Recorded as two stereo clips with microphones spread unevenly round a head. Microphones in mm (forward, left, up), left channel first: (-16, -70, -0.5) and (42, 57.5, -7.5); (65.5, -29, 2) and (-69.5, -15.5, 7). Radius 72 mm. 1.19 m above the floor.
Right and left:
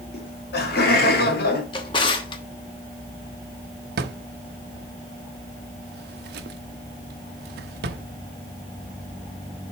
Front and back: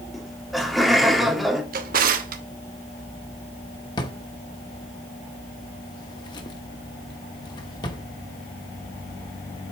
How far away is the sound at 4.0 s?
About 0.8 m.